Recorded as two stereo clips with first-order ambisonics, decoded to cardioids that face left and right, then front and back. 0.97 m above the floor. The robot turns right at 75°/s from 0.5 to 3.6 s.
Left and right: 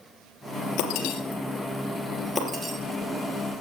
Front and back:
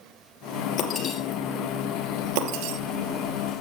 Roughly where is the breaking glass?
Ahead left.